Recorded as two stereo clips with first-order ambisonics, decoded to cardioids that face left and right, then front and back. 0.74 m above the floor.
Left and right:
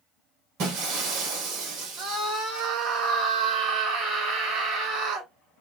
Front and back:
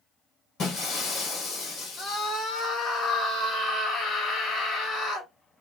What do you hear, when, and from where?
0.6 s breaking glass: 55° right, 3 m
2.0 s a scream: 75° right, 1.5 m